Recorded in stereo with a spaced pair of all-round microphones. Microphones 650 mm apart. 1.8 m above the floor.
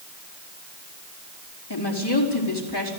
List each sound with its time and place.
1.7 s a woman speaking: 35° left (ahead or behind), 4 m